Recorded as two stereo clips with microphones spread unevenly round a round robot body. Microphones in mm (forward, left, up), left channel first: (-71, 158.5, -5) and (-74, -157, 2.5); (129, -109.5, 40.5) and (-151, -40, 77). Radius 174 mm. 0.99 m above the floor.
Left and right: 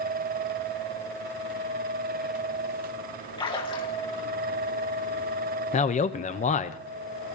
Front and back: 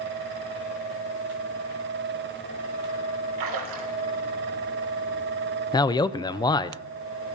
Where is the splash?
165° left, 3.5 m.